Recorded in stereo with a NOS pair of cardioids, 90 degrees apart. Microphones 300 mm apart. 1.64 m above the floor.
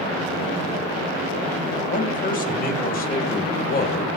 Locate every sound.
1.9 s a man speaking: 25° left, 2.5 m; by 4.1 s 30° left, 1.3 m